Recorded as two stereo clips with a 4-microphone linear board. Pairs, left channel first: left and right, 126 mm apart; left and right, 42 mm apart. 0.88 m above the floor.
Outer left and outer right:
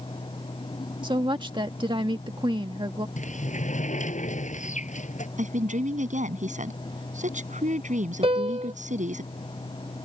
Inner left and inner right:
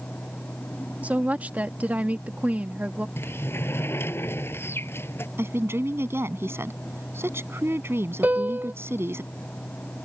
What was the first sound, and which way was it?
A woman speaking, 40° right (ahead or behind).